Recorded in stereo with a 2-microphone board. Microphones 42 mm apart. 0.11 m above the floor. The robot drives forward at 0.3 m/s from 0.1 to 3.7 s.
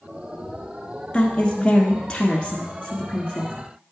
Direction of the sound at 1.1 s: 20° left (ahead or behind).